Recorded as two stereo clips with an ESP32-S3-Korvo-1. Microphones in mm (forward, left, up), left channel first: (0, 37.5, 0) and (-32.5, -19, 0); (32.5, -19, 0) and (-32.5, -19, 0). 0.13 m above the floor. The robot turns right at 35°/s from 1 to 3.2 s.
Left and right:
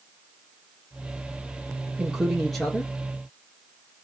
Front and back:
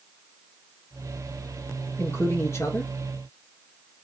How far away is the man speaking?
About 1.9 m.